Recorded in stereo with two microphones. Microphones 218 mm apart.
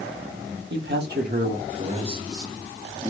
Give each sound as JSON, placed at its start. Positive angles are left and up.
{"t": 0.7, "sound": "a man speaking", "side_deg": -55, "distance_m": 1.2}